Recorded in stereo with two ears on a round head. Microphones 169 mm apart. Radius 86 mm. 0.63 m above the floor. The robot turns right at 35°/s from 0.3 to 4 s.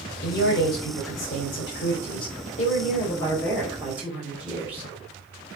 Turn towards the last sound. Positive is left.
turn(degrees=-170)